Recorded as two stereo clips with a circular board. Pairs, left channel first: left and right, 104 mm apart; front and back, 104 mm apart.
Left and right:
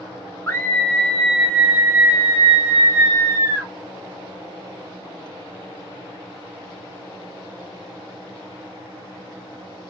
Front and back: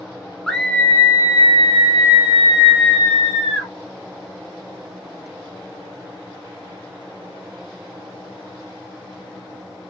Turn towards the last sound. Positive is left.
turn(degrees=-30)